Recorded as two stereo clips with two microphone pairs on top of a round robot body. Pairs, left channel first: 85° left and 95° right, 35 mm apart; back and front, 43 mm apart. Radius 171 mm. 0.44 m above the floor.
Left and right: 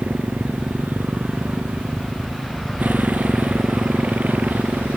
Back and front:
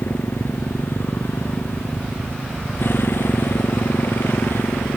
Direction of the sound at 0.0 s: 140° right.